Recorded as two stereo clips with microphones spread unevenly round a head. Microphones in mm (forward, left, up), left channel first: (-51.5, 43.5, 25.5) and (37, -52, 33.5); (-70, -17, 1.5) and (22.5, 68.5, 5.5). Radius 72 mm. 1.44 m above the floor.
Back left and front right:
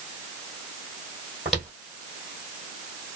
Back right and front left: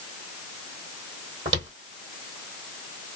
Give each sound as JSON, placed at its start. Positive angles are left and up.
{"t": 1.4, "sound": "footsteps", "azimuth_deg": 40, "distance_m": 1.7}